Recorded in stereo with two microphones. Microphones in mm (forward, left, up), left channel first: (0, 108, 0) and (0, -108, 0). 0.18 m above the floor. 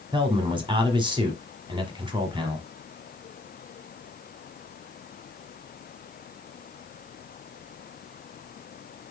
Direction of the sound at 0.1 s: 20° right (ahead or behind).